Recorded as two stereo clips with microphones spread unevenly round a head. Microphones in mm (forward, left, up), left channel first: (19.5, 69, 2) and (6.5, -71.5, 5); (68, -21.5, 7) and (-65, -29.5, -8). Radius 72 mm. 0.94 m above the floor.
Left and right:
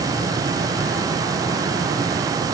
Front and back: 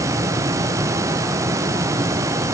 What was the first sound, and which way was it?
Only background noise.